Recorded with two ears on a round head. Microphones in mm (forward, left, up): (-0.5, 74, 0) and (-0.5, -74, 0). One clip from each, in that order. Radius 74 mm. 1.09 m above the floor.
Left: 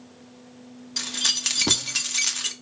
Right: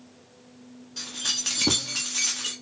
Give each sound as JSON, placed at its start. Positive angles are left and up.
{"t": 1.0, "sound": "keys jangling", "side_deg": 45, "distance_m": 1.0}